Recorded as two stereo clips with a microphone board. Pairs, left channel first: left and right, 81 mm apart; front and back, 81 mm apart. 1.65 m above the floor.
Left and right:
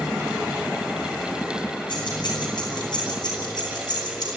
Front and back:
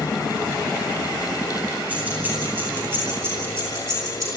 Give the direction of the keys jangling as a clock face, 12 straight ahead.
8 o'clock.